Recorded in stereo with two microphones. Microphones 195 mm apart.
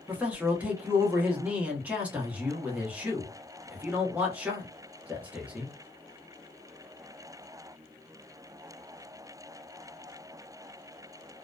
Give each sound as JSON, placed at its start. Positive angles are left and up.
{"t": 0.1, "sound": "a man speaking", "side_deg": -10, "distance_m": 0.8}